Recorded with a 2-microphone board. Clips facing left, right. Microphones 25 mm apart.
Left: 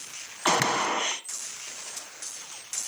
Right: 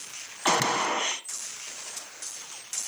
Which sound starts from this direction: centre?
A gunshot, at 0.5 s.